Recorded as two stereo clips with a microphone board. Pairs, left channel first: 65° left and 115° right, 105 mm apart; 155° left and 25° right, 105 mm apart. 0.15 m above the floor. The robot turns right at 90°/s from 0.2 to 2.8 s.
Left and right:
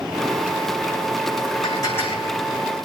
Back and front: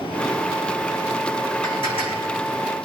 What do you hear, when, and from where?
1.6 s dishes clattering: 105° left, 6 m; by 2.3 s 170° left, 6 m